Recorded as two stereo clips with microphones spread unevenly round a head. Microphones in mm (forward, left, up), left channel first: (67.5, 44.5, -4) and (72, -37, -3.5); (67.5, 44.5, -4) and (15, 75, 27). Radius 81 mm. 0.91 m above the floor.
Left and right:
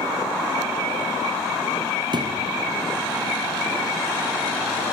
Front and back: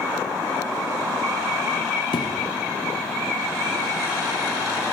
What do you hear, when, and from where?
2.1 s a thud: 60° right, 3.5 m